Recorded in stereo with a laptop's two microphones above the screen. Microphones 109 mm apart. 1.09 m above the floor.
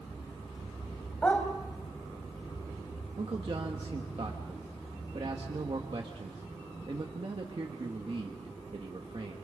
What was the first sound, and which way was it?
A dog barking, 15° left (ahead or behind).